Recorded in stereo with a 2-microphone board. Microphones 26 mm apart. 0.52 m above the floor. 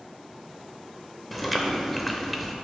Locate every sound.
1.3 s chewing: centre (ahead or behind), 0.8 m